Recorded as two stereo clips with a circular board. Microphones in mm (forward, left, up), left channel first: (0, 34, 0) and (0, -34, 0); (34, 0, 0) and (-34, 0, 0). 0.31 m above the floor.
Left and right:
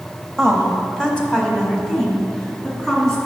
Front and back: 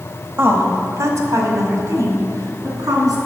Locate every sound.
0.4 s a woman speaking: 165° left, 1.3 m